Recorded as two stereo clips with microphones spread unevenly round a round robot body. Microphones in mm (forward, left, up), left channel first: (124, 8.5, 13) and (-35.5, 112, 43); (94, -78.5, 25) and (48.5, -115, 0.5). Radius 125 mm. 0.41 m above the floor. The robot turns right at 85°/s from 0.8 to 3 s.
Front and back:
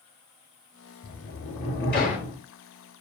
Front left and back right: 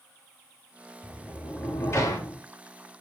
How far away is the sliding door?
About 7.5 m.